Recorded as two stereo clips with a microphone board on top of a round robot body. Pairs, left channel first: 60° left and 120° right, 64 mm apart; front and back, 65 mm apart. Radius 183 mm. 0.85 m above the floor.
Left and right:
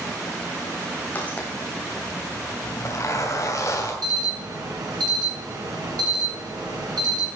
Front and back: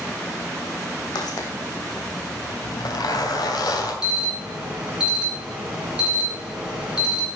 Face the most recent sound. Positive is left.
turn(degrees=-105)